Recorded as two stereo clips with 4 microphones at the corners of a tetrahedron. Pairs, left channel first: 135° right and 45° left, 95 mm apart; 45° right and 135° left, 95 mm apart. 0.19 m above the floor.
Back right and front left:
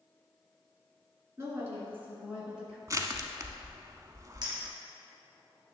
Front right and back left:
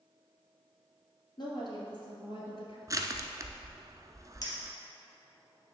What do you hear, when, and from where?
1.4 s a woman speaking: 10° right, 2.5 m; by 2.8 s 40° right, 2.5 m
2.9 s crushing: 95° left, 0.6 m
4.4 s a clink: 5° left, 3 m